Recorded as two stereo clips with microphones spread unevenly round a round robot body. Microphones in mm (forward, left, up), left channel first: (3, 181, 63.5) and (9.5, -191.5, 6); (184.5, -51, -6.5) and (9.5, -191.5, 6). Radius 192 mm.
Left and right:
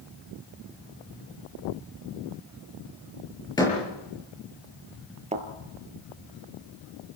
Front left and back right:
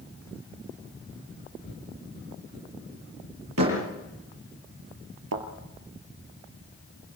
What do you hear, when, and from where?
3.6 s a door slam: 170° left, 6.5 m
5.3 s a thud: 160° right, 2 m